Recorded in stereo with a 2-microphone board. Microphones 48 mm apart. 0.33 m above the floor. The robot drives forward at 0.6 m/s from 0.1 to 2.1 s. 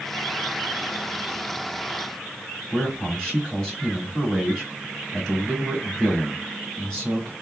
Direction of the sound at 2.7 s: 15° left (ahead or behind).